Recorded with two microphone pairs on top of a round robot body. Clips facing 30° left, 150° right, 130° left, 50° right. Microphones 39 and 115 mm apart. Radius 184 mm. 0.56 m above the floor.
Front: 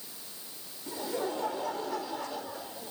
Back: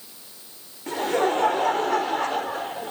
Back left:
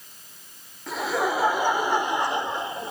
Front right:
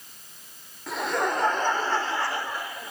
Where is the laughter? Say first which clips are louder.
Back 11 dB, back left 1 dB; 140° right; by 2.9 s 175° right.